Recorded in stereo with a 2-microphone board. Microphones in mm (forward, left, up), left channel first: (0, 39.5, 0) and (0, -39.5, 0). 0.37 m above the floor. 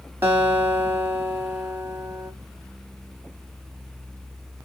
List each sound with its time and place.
0.2 s a guitar: 30° right (ahead or behind), 1.8 m